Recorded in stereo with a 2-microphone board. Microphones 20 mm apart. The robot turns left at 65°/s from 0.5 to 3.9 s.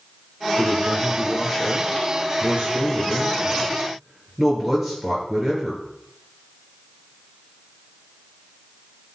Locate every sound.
0.6 s a man speaking: 50° left, 7 m; by 5.8 s 170° right, 7 m